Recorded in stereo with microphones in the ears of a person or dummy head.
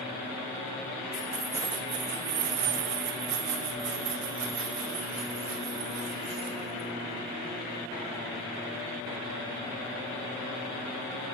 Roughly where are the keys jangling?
Centre.